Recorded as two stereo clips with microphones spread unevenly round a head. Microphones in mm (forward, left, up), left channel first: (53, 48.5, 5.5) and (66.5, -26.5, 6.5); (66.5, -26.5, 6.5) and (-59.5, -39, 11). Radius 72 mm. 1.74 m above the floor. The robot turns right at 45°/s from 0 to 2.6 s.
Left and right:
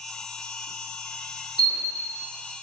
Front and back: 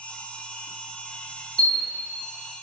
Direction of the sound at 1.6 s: 150° right.